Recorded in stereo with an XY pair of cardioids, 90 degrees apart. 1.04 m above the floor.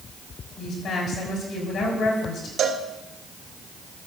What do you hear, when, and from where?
0.6 s a woman speaking: 65° left, 6 m
2.6 s a cowbell: 70° right, 1.1 m